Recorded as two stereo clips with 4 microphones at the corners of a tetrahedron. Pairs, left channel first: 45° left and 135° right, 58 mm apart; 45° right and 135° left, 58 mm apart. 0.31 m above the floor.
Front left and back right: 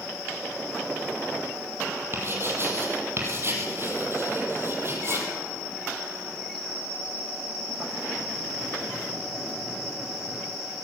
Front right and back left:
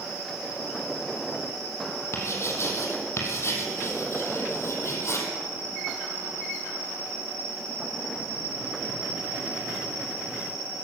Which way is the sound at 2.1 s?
85° right.